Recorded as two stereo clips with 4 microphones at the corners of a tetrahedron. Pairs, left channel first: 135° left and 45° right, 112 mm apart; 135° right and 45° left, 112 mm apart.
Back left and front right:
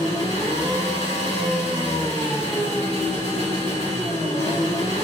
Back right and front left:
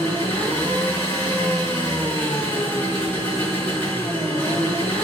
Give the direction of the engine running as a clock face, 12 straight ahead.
7 o'clock.